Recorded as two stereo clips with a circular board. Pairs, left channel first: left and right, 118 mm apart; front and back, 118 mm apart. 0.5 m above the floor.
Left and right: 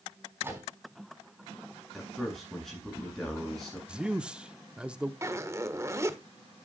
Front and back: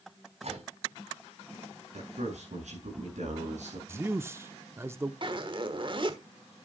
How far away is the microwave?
About 4 m.